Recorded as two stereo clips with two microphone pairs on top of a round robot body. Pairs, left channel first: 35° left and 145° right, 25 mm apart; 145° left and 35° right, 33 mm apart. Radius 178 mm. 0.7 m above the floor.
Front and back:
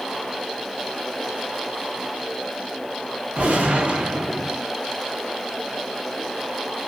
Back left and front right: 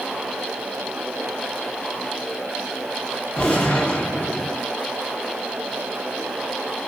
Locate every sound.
3.4 s a gunshot: 160° right, 0.6 m